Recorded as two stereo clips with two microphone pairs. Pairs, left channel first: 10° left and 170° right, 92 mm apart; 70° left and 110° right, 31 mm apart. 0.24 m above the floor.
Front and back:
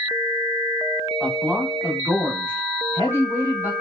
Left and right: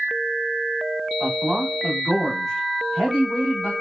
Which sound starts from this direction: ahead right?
A man speaking, at 1.2 s.